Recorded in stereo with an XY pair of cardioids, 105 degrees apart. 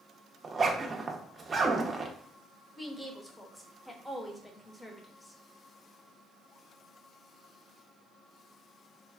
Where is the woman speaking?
20° left, 0.8 m.